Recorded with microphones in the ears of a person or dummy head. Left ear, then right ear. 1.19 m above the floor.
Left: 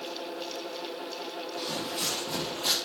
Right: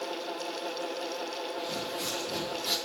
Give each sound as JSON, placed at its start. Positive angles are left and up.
{"t": 1.6, "sound": "footsteps", "side_deg": 60, "distance_m": 2.5}